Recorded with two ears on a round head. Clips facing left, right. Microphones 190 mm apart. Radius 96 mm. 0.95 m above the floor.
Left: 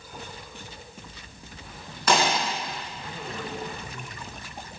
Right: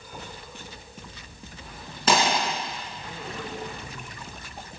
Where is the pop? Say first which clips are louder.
Even; 25° right (ahead or behind), 4.5 m.